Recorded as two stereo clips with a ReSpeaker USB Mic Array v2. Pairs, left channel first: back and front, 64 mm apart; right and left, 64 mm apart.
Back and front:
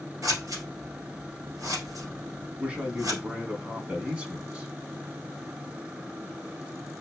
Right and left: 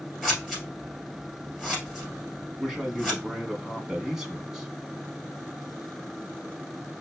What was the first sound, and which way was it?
Scissors, 10° left.